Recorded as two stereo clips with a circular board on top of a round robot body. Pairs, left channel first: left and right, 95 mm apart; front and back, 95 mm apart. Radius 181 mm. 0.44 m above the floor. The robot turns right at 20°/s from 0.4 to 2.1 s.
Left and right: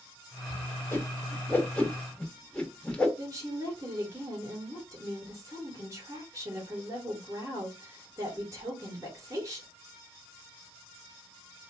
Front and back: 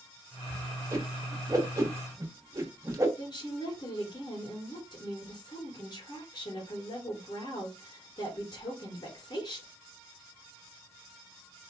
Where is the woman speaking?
35° right, 3 m.